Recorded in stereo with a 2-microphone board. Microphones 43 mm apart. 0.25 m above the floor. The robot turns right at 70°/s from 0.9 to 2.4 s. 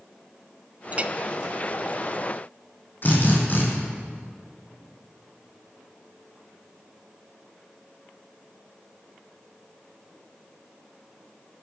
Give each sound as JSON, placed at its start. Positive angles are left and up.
{"t": 0.9, "sound": "a clink", "side_deg": -35, "distance_m": 0.6}
{"t": 3.0, "sound": "a drill", "side_deg": 45, "distance_m": 4.5}